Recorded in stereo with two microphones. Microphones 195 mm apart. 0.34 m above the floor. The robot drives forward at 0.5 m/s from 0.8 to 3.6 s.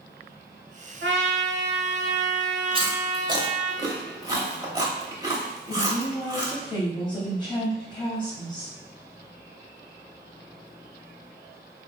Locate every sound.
1.0 s a trumpet: 70° right (ahead or behind), 0.6 m; by 3.7 s 25° right (ahead or behind), 1.3 m
2.7 s chewing: 25° right (ahead or behind), 0.6 m; by 6.5 s 20° right (ahead or behind), 0.8 m
5.7 s a woman speaking: 25° left (ahead or behind), 1.8 m